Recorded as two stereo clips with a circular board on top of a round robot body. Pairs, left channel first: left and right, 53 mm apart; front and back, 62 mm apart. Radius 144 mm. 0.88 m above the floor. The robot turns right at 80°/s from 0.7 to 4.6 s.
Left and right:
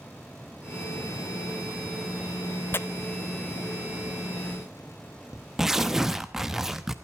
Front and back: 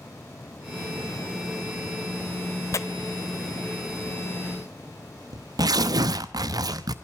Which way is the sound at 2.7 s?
40° left.